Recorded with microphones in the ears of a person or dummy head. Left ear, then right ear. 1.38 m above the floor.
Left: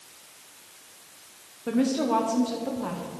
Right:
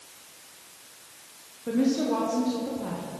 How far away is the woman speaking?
About 1.1 m.